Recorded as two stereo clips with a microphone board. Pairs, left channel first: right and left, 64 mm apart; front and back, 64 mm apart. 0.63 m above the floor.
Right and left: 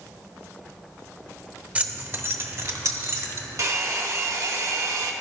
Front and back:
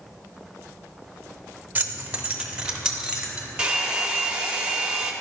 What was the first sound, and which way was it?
Keys jangling, 140° left.